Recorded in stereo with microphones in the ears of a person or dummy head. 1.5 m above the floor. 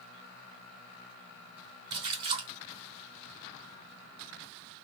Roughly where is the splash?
Right.